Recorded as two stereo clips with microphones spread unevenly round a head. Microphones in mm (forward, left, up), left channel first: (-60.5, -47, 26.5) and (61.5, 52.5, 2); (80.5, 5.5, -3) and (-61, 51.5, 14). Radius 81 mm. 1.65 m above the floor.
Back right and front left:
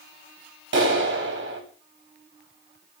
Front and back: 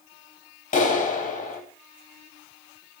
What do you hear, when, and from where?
0.7 s a clap: 20° left, 9 m